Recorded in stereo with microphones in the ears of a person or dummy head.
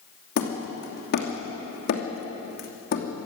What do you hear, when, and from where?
0.4 s hammering: 60° left (ahead or behind), 2.5 m